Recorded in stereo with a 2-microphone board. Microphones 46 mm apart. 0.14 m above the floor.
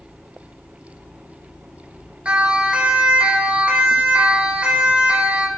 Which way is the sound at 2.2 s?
25° right (ahead or behind).